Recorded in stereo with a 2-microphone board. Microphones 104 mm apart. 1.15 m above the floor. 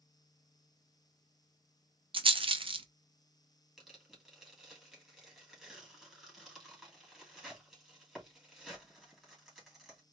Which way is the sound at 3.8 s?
Centre (ahead or behind).